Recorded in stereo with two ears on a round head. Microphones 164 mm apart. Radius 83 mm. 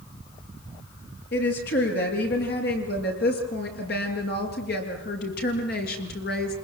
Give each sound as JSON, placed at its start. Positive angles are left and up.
{"t": 1.3, "sound": "a woman speaking", "side_deg": 60, "distance_m": 8.0}